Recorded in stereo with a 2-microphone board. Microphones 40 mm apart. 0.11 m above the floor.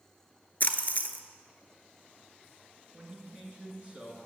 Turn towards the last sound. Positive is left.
turn(degrees=-30)  # may be behind; listen again after turning